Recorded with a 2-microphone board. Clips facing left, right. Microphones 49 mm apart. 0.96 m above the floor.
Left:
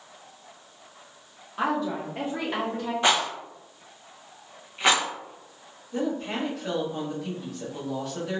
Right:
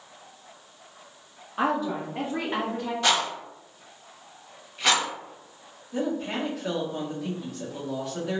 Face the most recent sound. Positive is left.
turn(degrees=-5)  # may be behind; listen again after turning